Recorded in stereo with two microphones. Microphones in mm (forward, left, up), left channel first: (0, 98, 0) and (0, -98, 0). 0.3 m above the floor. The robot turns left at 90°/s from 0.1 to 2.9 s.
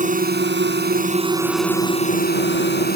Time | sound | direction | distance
0.0 | a drone | 45° right | ?